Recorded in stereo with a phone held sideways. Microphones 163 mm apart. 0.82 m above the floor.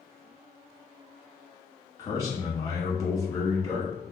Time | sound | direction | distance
2.0 | a man speaking | 20° left (ahead or behind) | 1.4 m